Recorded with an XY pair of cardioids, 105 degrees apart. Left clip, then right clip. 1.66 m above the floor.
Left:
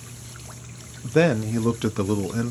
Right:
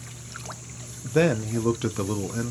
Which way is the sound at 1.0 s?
20° left.